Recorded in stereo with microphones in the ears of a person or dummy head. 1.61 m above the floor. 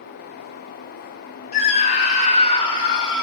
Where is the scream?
45° left (ahead or behind), 3.5 m; by 3.2 s 25° left (ahead or behind), 4 m.